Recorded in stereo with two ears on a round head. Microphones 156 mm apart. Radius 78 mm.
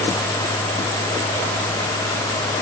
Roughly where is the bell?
I don't hear a bell.